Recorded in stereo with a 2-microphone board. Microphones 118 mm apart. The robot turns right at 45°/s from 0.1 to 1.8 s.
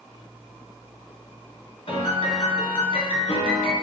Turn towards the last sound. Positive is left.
turn(degrees=50)  # may be behind; listen again after turning